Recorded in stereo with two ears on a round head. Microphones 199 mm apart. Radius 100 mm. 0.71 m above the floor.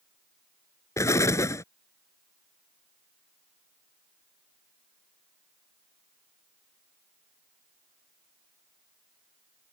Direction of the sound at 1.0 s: 15° left (ahead or behind).